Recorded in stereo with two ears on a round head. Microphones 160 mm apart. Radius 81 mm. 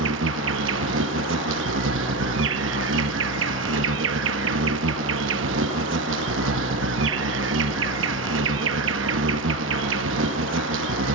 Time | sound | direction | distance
0.0 | an insect | 75° right (ahead or behind) | 1.1 m